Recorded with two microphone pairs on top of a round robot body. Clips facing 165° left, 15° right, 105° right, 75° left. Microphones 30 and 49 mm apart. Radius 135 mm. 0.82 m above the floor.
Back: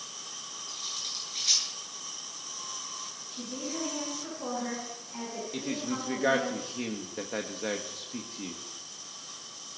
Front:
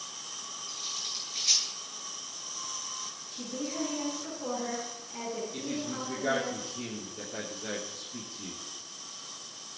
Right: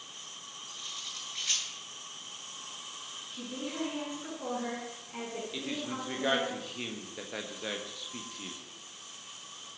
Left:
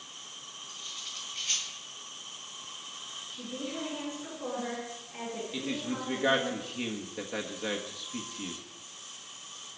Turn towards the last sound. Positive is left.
turn(degrees=160)